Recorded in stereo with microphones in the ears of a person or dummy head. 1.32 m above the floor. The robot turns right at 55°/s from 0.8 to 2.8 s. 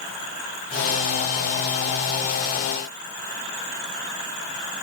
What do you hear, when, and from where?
Only background noise.